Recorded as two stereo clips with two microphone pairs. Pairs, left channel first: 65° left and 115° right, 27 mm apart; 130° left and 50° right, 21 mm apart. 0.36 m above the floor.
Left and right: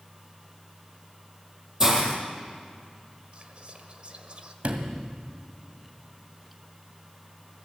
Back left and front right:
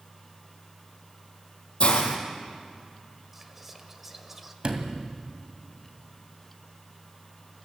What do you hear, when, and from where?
1.8 s a hiss: 170° left, 3.5 m
3.3 s whispering: 120° right, 1.7 m
4.6 s a sliding door: 90° right, 2 m